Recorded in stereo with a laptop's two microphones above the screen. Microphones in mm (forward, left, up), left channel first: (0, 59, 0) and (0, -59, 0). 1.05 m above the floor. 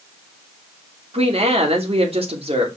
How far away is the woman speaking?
About 3 m.